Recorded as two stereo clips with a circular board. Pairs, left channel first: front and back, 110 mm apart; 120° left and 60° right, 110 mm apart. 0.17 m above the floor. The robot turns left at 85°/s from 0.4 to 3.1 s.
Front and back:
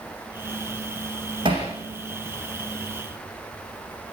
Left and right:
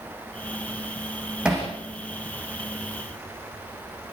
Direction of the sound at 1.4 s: 140° right.